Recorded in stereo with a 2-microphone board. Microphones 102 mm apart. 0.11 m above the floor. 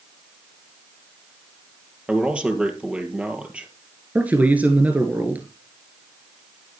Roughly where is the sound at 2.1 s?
Centre.